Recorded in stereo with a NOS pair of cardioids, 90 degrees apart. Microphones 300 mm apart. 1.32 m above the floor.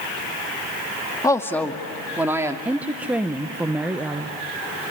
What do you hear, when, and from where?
1.2 s a woman speaking: 10° left, 2 m; by 2.5 s 10° right, 2.5 m
2.6 s a woman speaking: 5° right, 1.0 m